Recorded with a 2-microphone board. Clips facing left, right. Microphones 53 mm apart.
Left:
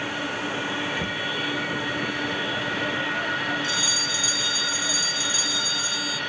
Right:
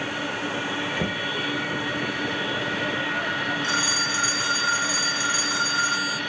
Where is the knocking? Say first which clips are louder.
Right 1 dB; 30° right (ahead or behind).